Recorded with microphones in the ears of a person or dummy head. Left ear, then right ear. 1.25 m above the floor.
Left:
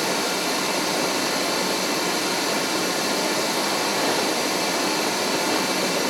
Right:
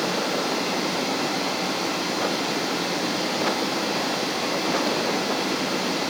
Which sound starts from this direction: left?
Running water, at 0.0 s.